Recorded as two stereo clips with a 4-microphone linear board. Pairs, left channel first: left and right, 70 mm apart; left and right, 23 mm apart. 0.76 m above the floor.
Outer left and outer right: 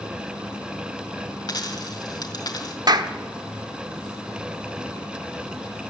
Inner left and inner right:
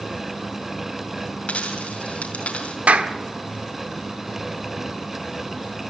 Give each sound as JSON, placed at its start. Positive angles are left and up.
{"t": 1.5, "sound": "a dropped coin", "side_deg": 70, "distance_m": 4.0}
{"t": 2.9, "sound": "a clap", "side_deg": -70, "distance_m": 1.2}